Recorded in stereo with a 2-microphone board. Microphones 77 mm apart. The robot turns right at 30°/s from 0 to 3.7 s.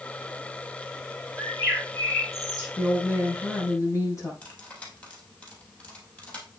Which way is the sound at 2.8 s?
10° left (ahead or behind).